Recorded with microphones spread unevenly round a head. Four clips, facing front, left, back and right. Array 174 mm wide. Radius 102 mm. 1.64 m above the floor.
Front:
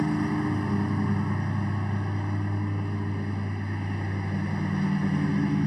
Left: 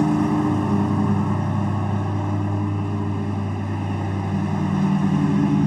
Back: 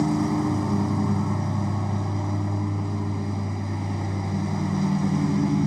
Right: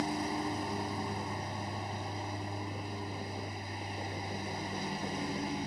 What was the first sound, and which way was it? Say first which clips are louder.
A lawn mower: left 15 dB, back 3 dB; 100° left.